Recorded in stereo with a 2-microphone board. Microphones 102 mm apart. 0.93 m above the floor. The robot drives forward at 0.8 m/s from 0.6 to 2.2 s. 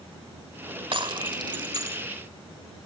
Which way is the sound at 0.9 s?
55° right (ahead or behind).